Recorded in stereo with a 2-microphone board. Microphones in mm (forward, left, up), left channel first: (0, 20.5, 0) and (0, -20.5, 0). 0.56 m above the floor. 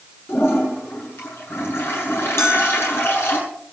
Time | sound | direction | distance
0.3 | a toilet flushing | 65° left (ahead or behind) | 7.5 m
2.4 | a bell | 85° left | 5.5 m